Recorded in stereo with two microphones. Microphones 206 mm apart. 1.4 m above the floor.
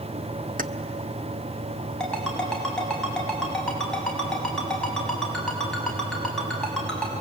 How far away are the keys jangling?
About 0.7 m.